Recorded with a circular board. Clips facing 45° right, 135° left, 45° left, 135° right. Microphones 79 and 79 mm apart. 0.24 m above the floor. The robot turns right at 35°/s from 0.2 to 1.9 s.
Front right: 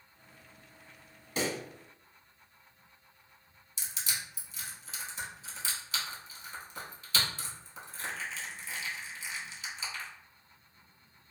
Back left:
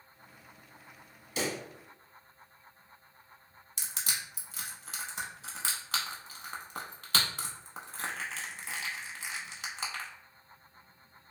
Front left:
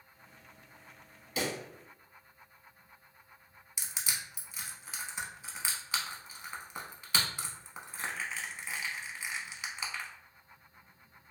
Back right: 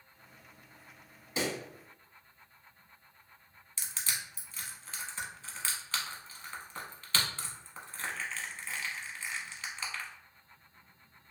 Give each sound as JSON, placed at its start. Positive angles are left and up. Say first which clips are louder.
{"t": 1.4, "sound": "a pop", "louder": "front right 1 dB, back right 1 dB", "azimuth_deg": -80, "distance_m": 0.8}
{"t": 3.8, "sound": "crushing", "louder": "back left 1 dB, even", "azimuth_deg": 120, "distance_m": 0.5}